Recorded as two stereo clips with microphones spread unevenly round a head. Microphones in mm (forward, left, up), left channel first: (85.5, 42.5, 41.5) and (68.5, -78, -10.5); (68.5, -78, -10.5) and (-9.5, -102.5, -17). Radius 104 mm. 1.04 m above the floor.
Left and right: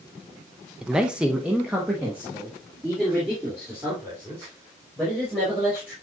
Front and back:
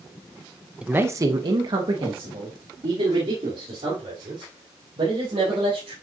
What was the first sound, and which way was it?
A man speaking, 105° right.